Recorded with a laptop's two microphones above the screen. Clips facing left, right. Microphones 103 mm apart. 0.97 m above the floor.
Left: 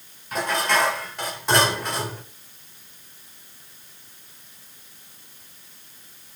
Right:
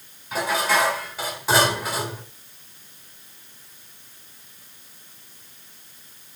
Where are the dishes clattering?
5° right (ahead or behind), 2.5 m.